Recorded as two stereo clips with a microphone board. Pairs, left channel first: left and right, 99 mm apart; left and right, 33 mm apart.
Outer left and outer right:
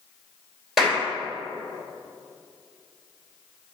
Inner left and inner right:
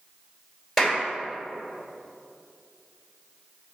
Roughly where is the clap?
Centre.